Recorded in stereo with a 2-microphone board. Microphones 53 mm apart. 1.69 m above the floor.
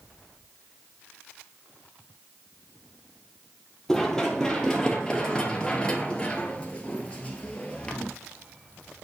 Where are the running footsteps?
10° left (ahead or behind), 2.5 m; by 8.1 s 25° left (ahead or behind), 2 m.